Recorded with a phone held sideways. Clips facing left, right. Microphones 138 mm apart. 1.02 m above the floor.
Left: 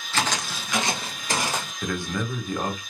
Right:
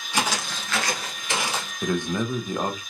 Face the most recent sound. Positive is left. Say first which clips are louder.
# right 5 dB
turn(degrees=-20)  # may be behind; listen again after turning